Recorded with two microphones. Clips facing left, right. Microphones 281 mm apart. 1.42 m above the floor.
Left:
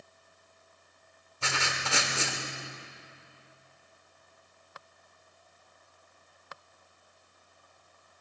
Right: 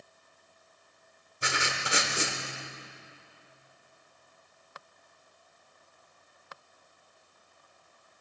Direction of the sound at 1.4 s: 20° right (ahead or behind).